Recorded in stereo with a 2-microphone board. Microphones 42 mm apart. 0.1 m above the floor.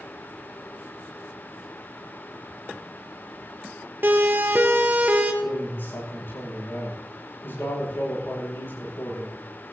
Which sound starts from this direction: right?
A siren, at 4.0 s.